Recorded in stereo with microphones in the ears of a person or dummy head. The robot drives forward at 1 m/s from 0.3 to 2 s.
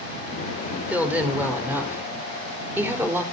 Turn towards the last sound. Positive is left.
turn(degrees=-15)  # may be behind; listen again after turning